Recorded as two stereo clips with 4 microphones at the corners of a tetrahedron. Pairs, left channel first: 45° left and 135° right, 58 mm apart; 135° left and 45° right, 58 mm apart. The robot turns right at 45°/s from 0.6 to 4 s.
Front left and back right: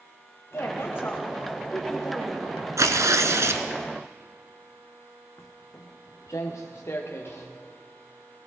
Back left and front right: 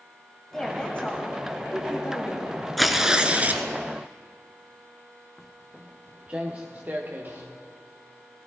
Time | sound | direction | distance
0.5 | a woman speaking | 60° left | 1.5 m
2.8 | tearing paper | 135° right | 1.0 m
5.4 | footsteps | 50° left | 1.3 m